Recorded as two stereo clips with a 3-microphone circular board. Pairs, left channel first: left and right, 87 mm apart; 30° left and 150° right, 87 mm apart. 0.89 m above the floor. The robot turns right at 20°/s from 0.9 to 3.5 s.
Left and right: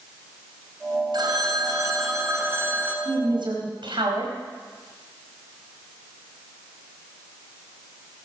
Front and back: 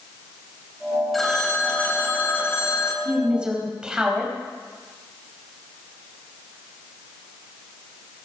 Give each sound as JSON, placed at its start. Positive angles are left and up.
{"t": 1.1, "sound": "a phone ringing", "azimuth_deg": -60, "distance_m": 2.5}
{"t": 3.0, "sound": "a woman speaking", "azimuth_deg": -80, "distance_m": 4.5}